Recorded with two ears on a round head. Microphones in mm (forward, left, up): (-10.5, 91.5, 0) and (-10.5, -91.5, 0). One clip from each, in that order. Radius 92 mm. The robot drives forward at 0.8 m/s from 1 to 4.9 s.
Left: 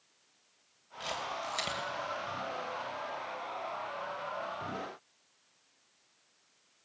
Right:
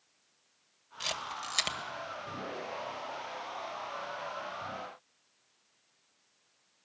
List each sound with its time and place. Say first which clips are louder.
1.0 s a camera shutter: right 1 dB; 55° right (ahead or behind), 2 m; by 1.8 s 45° right (ahead or behind), 2 m